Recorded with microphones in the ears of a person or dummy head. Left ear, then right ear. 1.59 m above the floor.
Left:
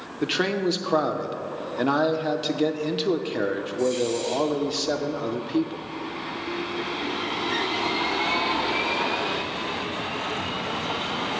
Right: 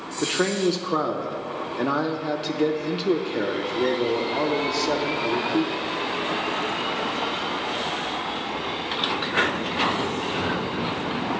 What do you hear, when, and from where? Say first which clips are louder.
0.2 s a man speaking: right 1 dB; 5° left (ahead or behind), 0.7 m